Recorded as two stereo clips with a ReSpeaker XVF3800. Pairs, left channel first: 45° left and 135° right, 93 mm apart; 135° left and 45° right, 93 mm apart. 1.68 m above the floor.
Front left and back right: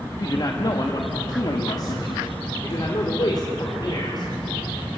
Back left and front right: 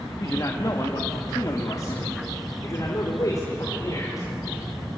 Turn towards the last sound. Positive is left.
turn(degrees=85)